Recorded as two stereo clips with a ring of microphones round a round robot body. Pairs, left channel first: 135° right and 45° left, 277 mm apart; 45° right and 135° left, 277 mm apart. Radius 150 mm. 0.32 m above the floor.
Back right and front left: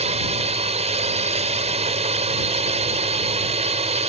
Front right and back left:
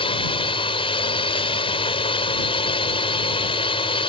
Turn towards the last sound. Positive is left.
turn(degrees=5)